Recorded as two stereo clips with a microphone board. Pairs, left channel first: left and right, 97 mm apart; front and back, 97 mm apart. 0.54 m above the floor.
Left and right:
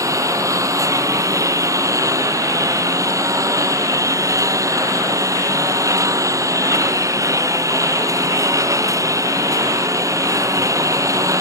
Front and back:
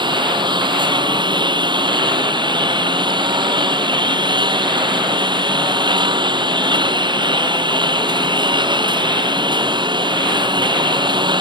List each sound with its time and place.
0.0 s a lawn mower: 145° right